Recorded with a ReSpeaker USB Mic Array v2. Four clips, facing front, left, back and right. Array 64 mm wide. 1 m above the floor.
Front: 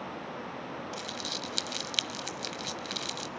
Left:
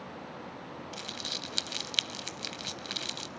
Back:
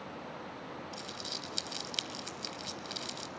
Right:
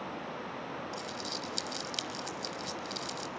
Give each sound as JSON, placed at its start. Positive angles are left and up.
{"t": 0.9, "sound": "crumpling", "azimuth_deg": 60, "distance_m": 1.0}